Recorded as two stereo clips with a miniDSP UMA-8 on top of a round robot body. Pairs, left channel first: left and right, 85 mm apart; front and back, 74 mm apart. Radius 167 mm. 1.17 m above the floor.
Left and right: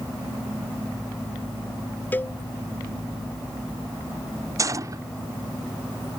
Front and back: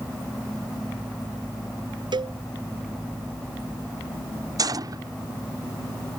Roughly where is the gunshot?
Behind right.